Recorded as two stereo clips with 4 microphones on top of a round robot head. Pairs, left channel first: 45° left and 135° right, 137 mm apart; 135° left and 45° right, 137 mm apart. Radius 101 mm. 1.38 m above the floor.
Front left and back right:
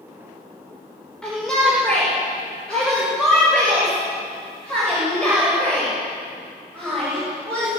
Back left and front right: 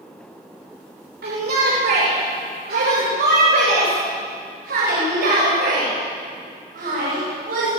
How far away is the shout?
About 6 m.